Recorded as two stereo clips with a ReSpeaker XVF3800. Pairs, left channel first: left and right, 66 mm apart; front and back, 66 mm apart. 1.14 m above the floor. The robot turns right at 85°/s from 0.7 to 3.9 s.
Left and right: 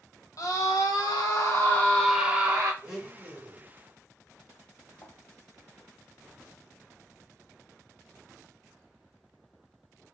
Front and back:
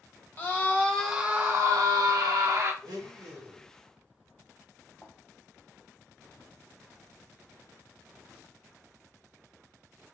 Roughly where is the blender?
Behind.